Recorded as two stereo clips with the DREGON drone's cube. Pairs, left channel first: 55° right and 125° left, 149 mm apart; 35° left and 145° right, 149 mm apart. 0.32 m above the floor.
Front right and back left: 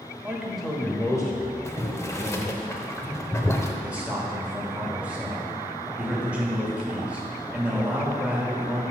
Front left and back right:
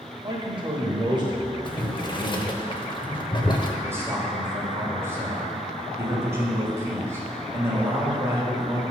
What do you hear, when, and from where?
0.2 s a man speaking: 165° right, 1.1 m; by 2.6 s 80° right, 1.8 m
1.6 s boiling: 5° left, 0.7 m
3.8 s a man speaking: 170° right, 1.3 m